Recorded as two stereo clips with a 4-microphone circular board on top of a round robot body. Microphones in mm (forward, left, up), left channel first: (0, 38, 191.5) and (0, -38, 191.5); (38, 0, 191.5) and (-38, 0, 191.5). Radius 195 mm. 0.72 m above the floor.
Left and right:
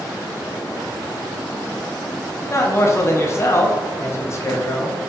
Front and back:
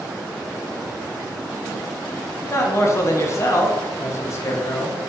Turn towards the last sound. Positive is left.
turn(degrees=45)